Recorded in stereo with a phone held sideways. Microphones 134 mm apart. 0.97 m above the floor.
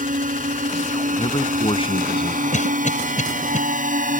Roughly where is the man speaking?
Left.